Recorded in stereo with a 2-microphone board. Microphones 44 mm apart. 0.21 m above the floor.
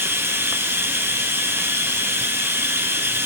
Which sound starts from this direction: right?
Running water, at 0.0 s.